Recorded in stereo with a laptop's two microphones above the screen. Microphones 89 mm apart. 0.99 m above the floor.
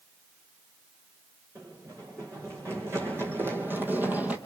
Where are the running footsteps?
30° right (ahead or behind), 4 m; by 4.4 s 15° right (ahead or behind), 1.7 m.